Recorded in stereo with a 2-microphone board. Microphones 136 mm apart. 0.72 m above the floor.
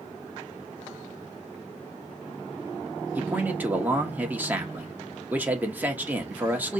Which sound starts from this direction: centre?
A man speaking, at 3.1 s.